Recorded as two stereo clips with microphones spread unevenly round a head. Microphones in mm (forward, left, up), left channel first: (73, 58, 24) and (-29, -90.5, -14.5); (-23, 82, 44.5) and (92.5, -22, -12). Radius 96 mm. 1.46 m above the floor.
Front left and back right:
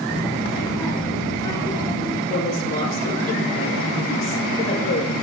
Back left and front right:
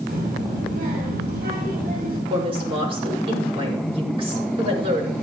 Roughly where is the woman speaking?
Ahead.